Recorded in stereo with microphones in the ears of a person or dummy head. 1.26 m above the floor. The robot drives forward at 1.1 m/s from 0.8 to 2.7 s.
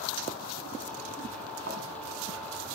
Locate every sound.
1.7 s a thud: 65° right (ahead or behind), 4.5 m; by 1.8 s 70° right (ahead or behind), 4.5 m